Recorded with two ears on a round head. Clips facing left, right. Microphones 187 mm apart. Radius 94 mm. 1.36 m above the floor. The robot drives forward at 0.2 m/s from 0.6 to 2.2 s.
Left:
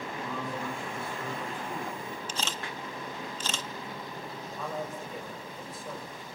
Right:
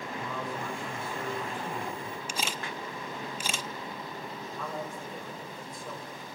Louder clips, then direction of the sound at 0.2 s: Left 1 dB; 75° right (ahead or behind).